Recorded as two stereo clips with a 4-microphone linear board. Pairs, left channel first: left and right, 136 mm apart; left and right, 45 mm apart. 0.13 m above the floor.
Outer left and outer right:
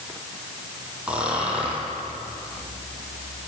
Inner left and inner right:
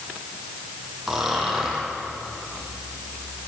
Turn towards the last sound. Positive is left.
turn(degrees=-10)  # may be behind; listen again after turning